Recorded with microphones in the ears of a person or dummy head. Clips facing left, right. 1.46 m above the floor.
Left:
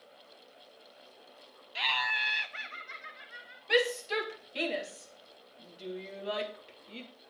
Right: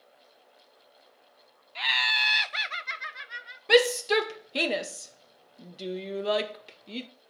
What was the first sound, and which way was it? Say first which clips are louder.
Laughter: right 1 dB; 10° left (ahead or behind).